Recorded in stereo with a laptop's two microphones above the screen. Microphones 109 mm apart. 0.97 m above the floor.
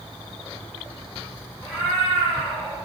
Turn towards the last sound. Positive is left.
turn(degrees=15)  # may be behind; listen again after turning